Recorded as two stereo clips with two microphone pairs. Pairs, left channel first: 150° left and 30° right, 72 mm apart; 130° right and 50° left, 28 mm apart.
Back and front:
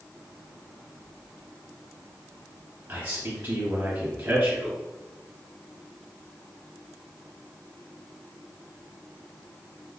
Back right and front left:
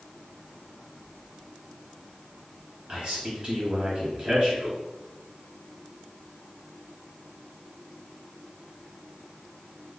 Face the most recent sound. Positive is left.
turn(degrees=-5)